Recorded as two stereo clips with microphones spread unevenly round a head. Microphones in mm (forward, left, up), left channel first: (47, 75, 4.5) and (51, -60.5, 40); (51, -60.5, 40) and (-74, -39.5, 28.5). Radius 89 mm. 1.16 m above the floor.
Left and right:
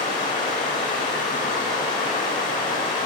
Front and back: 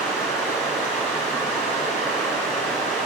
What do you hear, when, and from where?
0.0 s running water: 65° left, 4.5 m